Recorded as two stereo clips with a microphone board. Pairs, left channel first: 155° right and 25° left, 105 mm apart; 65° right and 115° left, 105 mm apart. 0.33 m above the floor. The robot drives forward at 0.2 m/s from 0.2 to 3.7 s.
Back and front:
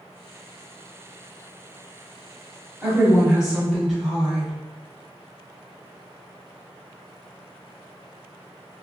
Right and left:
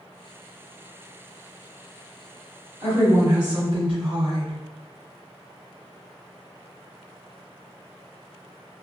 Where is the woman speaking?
100° left, 1.7 m; by 4.5 s 105° left, 1.7 m.